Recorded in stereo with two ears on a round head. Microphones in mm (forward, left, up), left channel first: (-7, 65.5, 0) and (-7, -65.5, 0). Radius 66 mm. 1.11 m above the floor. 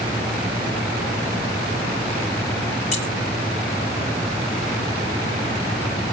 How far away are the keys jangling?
About 3 m.